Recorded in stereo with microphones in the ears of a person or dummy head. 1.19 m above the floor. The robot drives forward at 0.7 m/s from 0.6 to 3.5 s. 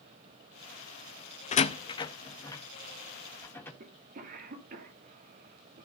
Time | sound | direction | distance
1.5 | a door slam | 35° left (ahead or behind) | 0.7 m
3.8 | a cough | 50° right (ahead or behind) | 3 m